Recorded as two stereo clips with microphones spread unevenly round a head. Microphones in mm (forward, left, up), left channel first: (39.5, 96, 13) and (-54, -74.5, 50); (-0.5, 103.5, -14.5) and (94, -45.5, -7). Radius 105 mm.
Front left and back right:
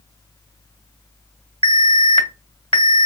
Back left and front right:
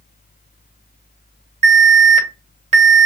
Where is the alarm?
5° right, 1.7 m.